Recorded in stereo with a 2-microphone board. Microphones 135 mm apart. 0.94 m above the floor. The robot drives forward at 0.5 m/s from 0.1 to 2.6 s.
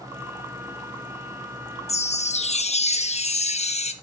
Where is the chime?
50° left (ahead or behind), 0.7 m; by 3.9 s 55° left (ahead or behind), 0.7 m.